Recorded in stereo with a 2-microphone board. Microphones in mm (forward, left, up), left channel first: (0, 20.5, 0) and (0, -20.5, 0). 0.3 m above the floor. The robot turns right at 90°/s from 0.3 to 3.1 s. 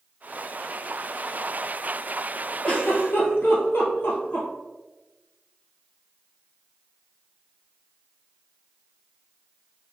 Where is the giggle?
25° left (ahead or behind), 1.4 m; by 4.5 s 65° left (ahead or behind), 1.4 m.